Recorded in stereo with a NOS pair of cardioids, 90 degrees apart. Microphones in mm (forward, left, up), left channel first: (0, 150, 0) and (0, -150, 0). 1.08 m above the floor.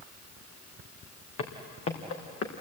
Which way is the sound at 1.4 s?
60° left.